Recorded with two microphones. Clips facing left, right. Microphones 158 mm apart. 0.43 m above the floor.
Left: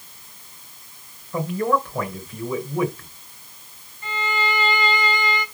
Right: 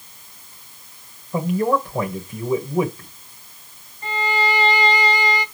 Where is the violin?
40° right (ahead or behind), 1.6 m.